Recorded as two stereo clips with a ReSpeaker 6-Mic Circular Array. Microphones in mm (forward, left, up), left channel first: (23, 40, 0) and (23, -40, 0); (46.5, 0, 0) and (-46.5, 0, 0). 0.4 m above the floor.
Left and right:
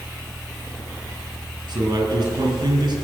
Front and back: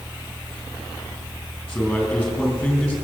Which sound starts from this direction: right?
A man speaking, at 1.7 s.